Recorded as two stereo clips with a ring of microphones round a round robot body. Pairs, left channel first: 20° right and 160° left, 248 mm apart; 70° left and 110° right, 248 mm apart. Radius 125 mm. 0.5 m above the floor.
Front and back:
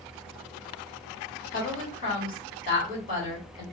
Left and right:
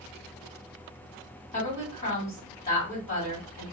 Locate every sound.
1.5 s a woman speaking: 25° left, 2 m